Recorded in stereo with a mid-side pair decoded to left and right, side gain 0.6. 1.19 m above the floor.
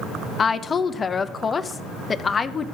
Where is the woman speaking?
30° left, 0.8 m.